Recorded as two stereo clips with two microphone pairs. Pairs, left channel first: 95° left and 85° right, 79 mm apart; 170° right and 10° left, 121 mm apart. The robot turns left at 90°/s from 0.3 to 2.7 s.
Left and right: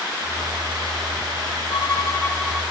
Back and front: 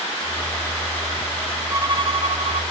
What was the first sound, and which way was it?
A violin, 75° left.